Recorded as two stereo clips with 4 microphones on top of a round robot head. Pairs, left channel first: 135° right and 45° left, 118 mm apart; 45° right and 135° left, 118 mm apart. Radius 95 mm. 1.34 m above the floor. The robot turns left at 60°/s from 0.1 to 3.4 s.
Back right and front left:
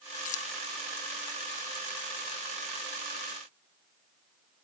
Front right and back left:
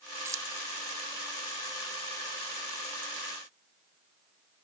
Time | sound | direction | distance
0.2 | keys jangling | 155° right | ?